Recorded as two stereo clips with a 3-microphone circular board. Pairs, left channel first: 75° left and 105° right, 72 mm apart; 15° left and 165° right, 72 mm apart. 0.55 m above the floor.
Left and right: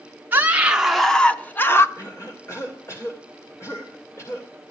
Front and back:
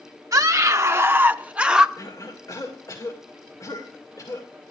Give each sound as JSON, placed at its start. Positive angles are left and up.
{"t": 0.3, "sound": "a scream", "azimuth_deg": -160, "distance_m": 0.8}
{"t": 2.0, "sound": "a cough", "azimuth_deg": 35, "distance_m": 2.0}